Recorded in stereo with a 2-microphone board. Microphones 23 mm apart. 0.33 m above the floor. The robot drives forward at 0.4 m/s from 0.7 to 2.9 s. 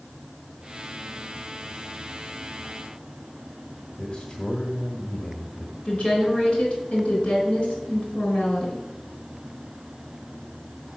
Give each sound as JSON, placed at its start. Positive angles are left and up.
{"t": 4.0, "sound": "a man speaking", "side_deg": 45, "distance_m": 1.2}
{"t": 5.8, "sound": "a woman speaking", "side_deg": 60, "distance_m": 3.5}